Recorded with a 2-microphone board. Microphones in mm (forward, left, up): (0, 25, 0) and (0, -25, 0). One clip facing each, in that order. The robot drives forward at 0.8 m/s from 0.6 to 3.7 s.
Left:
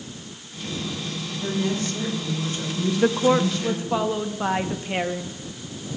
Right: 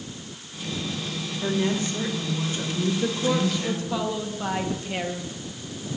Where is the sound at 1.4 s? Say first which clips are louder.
Right 1 dB; 35° right (ahead or behind), 2.5 m; by 4.0 s 20° right (ahead or behind), 4 m.